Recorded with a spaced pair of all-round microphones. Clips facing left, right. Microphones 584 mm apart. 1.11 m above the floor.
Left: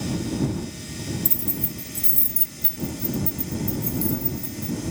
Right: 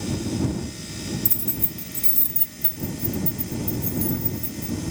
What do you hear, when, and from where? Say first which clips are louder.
1.2 s keys jangling: left 1 dB; 40° right (ahead or behind); by 4.8 s 50° right (ahead or behind)